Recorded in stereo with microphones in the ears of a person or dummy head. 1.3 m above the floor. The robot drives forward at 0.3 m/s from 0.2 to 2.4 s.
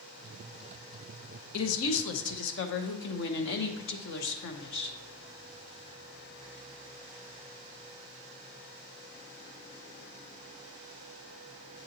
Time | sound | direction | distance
1.5 | a woman speaking | 80° left | 0.7 m